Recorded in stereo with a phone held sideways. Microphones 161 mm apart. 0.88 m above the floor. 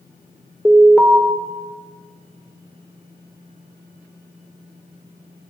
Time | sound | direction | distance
0.7 | an alarm | 5° right (ahead or behind) | 2.5 m